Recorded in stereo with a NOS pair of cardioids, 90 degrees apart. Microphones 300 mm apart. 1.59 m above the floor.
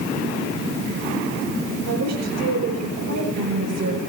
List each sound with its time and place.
1.9 s a woman speaking: 60° right, 6.5 m